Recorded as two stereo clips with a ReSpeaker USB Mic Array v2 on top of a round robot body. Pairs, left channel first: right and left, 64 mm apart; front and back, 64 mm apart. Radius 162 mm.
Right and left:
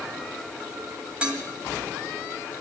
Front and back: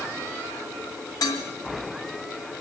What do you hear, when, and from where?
1.2 s dishes clattering: 15° left, 3 m